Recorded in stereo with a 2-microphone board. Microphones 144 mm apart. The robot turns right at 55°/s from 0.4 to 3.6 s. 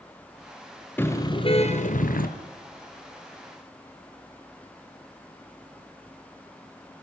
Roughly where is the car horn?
Ahead.